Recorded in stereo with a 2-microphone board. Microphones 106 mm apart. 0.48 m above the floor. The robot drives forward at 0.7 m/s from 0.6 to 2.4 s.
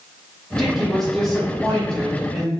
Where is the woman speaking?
Centre (ahead or behind), 1.3 m.